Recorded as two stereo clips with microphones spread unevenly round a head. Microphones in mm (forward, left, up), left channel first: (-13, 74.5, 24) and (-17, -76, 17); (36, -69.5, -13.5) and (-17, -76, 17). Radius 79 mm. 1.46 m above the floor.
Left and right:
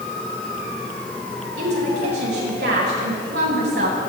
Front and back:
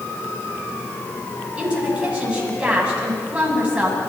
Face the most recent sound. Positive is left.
turn(degrees=-105)